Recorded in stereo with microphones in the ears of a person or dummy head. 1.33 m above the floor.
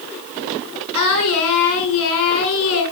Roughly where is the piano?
No piano in this recording.